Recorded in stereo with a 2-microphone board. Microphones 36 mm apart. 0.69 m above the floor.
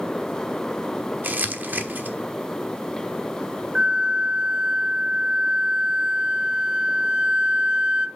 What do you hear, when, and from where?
1.2 s crumpling: 60° right (ahead or behind), 1.2 m
3.8 s a flute: 25° right (ahead or behind), 0.6 m